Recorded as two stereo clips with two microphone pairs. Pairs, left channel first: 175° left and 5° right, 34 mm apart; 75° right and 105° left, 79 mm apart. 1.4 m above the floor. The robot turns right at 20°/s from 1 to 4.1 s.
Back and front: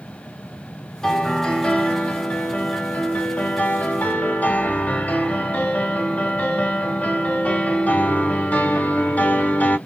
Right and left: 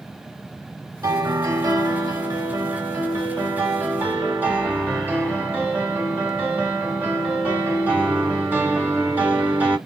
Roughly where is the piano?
Left.